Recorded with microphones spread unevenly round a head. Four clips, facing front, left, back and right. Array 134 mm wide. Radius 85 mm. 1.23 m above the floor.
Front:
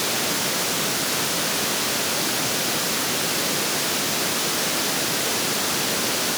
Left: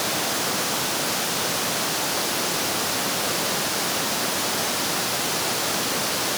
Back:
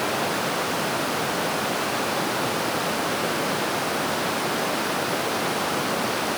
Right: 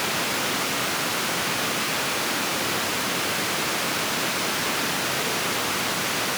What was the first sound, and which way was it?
Only background noise.